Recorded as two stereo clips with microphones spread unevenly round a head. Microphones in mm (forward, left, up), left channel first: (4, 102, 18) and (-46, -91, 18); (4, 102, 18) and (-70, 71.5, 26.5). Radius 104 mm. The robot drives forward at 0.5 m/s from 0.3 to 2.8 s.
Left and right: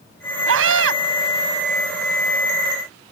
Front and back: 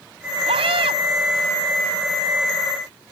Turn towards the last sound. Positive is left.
turn(degrees=-135)